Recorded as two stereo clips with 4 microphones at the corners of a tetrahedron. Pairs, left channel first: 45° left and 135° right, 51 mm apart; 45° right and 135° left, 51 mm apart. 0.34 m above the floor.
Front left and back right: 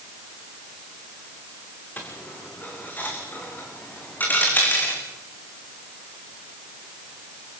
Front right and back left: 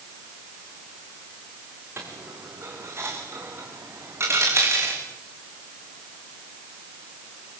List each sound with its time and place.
2.0 s a dropped coin: 95° left, 4 m